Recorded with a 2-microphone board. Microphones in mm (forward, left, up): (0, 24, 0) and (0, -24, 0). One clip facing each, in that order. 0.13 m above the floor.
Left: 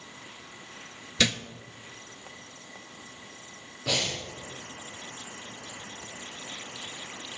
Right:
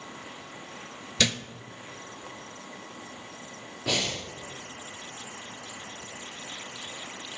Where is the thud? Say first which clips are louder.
Left 1 dB; 5° left (ahead or behind), 0.5 m.